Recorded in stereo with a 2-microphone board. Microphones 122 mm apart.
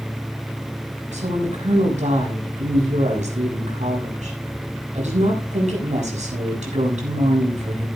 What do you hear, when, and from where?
1.1 s a woman speaking: 75° right (ahead or behind), 7 m